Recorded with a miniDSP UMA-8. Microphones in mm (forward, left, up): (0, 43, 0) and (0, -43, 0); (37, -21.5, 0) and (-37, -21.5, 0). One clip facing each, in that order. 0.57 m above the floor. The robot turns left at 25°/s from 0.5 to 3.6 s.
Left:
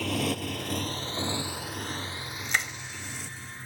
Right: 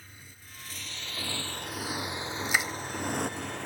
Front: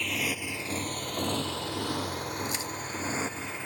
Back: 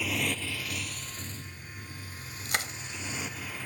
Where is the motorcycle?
95° left; by 3.6 s 70° right.